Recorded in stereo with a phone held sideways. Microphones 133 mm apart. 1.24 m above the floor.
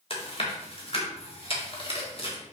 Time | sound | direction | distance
0.1 | chewing | 45° left (ahead or behind) | 1.8 m